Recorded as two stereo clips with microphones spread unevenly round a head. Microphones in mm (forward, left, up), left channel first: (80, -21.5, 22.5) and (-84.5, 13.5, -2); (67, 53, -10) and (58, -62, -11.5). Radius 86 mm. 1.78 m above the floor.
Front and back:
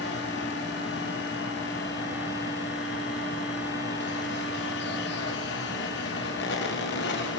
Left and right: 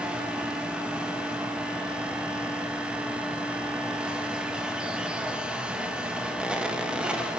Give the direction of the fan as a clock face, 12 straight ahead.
12 o'clock.